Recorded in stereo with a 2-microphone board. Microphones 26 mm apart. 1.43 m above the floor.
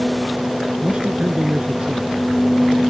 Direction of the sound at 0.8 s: 35° right (ahead or behind).